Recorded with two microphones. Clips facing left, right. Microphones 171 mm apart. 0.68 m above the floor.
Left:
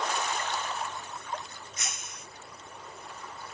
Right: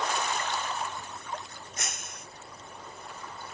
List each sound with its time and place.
1.8 s breaking glass: 55° right (ahead or behind)